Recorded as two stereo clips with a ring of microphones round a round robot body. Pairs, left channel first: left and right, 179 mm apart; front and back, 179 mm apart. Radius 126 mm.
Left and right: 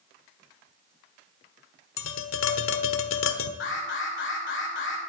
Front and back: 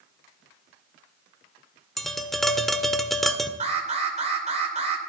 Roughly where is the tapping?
Left.